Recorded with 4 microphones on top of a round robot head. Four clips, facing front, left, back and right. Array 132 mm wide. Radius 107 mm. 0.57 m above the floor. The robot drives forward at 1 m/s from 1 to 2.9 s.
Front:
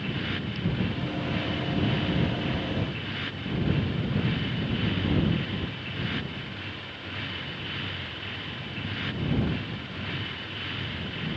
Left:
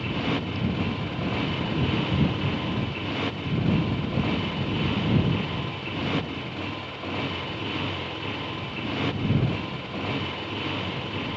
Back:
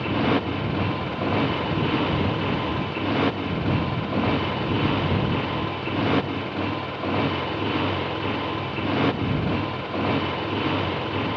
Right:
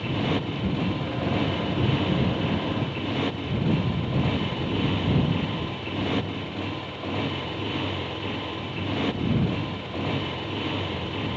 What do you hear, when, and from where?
0.0 s a motorcycle: 165° right